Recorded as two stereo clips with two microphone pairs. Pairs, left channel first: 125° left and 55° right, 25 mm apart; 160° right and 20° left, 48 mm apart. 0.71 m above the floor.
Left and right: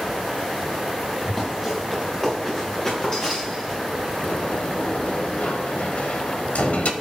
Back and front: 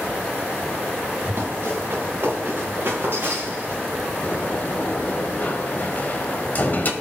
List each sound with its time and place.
1.2 s running footsteps: 50° left, 4.5 m; by 3.8 s 70° left, 6.5 m
4.2 s a sliding door: 150° left, 1.2 m